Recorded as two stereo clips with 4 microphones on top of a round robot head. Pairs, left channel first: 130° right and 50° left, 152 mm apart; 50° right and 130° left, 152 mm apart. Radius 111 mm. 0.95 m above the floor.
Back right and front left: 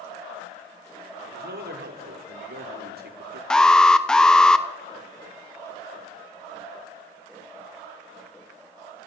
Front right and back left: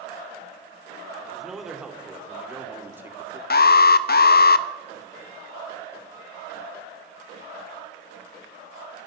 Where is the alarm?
45° right, 1.1 m.